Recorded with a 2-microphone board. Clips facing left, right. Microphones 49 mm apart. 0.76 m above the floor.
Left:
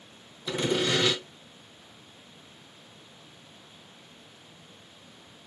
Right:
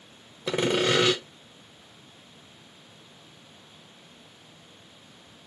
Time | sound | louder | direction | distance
0.5 | sawing | right 3 dB | 60° right (ahead or behind) | 0.6 m